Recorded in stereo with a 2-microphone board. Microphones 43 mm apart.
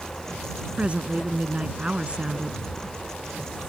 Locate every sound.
0.8 s a woman speaking: 30° right (ahead or behind)